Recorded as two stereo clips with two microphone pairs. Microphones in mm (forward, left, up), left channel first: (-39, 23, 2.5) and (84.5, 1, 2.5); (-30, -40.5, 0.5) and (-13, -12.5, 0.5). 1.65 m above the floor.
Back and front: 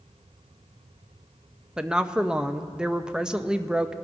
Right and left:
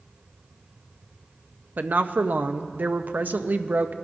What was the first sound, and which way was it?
A woman speaking, 70° left.